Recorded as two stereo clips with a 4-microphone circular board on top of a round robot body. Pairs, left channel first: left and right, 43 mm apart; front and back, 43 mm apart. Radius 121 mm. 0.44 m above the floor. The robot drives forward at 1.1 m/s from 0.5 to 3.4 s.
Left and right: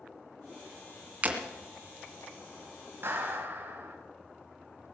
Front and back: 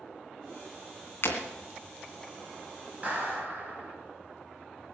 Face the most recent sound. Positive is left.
turn(degrees=-130)